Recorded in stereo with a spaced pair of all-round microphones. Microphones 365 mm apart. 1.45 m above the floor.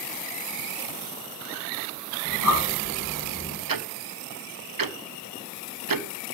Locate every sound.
2.2 s breathing: 60° right (ahead or behind), 9 m
3.7 s ticking: 65° right (ahead or behind), 0.6 m